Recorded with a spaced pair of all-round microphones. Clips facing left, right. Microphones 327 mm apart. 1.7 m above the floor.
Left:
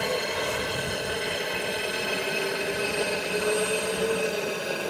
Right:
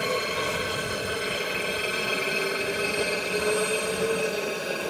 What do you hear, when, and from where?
0.0 s a helicopter: 5° right (ahead or behind); by 4.9 s centre (ahead or behind)